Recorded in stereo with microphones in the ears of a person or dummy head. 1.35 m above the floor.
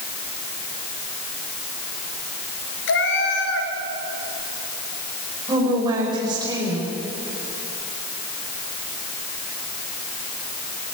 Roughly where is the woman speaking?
Right.